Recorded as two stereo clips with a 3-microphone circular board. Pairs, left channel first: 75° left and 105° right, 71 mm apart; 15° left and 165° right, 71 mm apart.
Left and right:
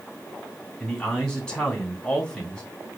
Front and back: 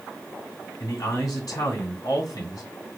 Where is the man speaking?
5° right, 1.9 m.